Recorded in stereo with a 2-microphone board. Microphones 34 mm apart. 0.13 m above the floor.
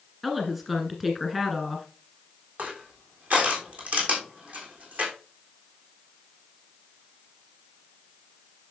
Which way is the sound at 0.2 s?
5° right (ahead or behind).